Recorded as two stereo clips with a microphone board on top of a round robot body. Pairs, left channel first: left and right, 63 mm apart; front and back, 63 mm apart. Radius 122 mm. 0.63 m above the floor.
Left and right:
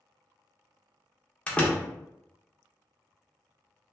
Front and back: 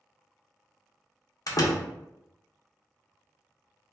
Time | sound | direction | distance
1.5 | a door slam | 20° left | 1.0 m